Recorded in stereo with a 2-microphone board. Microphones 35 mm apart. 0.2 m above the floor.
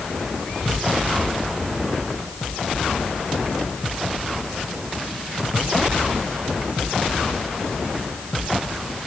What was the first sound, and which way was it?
Only background noise.